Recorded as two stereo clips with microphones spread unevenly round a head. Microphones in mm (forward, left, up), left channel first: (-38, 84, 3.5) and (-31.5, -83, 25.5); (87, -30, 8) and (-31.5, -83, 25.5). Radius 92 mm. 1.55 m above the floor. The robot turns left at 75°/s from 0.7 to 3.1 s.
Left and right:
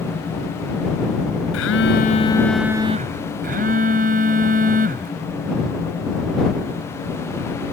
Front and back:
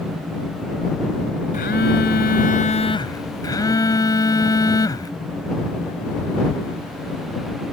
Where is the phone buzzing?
80° left; by 5.1 s 40° right.